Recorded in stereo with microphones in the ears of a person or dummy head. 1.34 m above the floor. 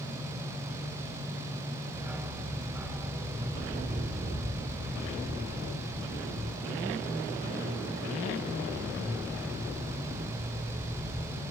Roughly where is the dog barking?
Centre.